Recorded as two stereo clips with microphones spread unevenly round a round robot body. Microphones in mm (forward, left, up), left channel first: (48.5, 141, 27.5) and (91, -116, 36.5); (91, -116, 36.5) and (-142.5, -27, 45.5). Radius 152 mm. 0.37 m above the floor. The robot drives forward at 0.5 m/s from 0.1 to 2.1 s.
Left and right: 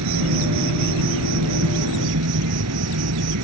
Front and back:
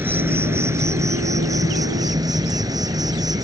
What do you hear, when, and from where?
0.0 s an insect: 120° right; by 3.5 s 125° right